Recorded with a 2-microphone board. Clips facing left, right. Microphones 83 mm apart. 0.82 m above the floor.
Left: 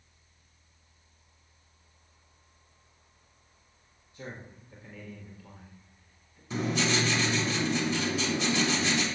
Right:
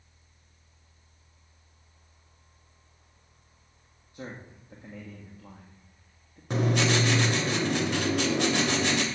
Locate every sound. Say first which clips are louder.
4.1 s a man speaking: right 2 dB; 55° right (ahead or behind), 1.6 m
6.5 s writing: right 3 dB; 65° right (ahead or behind), 1.4 m